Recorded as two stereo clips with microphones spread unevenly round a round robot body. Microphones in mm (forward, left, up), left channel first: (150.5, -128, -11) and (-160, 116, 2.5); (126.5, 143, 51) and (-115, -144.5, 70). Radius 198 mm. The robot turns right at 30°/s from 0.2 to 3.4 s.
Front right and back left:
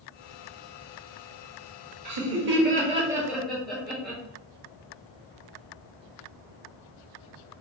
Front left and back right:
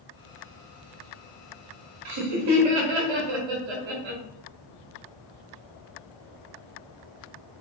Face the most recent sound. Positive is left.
turn(degrees=-125)